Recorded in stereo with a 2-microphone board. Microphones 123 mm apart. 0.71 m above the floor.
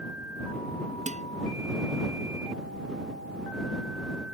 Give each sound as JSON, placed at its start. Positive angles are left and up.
{"t": 1.1, "sound": "dishes clattering", "side_deg": -85}